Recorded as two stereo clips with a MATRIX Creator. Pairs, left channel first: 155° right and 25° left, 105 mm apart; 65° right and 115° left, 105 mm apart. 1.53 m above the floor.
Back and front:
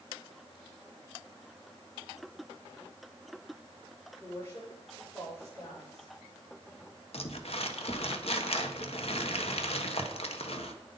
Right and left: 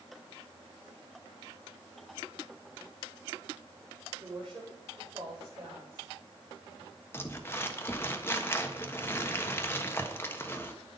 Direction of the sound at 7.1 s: 135° right.